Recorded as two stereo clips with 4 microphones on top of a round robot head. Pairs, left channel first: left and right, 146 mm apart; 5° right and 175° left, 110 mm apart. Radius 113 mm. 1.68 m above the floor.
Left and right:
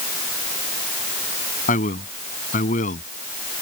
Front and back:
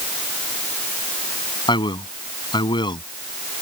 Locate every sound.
1.7 s a man speaking: 45° left